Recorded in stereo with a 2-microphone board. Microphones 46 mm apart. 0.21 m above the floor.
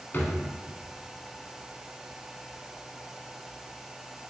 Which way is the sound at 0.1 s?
50° left (ahead or behind).